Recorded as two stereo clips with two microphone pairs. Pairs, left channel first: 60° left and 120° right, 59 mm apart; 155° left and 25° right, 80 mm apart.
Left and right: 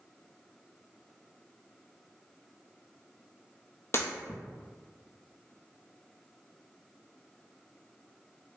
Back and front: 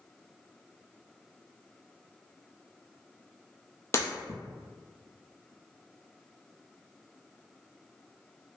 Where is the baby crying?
I don't hear a baby crying.